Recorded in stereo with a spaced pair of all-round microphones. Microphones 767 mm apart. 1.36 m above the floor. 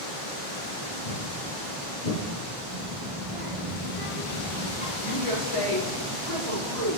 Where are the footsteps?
60° left (ahead or behind), 2.5 m; by 2.2 s 65° left (ahead or behind), 3 m.